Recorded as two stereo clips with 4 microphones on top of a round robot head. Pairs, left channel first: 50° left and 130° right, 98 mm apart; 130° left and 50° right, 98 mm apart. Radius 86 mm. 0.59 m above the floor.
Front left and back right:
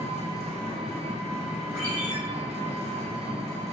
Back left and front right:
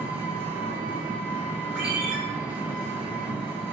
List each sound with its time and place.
0.0 s an engine running: 120° right, 0.7 m
1.8 s a ringtone: 130° right, 1.2 m